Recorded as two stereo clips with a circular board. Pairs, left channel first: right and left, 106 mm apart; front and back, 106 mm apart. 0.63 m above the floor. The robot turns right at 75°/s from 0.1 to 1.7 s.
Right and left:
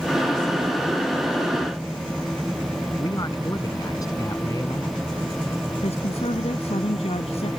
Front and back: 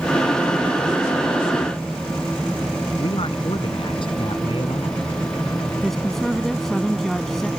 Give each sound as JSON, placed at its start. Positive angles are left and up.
{"t": 3.0, "sound": "a man speaking", "azimuth_deg": -35}
{"t": 5.8, "sound": "a woman speaking", "azimuth_deg": -90}